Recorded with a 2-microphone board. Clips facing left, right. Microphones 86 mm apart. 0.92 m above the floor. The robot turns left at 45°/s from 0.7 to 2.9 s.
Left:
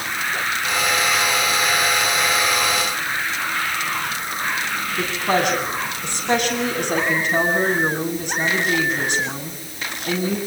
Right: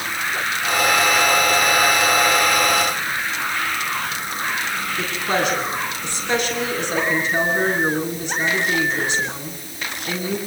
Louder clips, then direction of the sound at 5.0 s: Left 2 dB; 50° left (ahead or behind).